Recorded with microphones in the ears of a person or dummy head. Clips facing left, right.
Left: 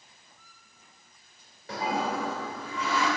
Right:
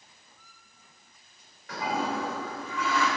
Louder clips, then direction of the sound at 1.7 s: Left 1 dB; 25° left (ahead or behind).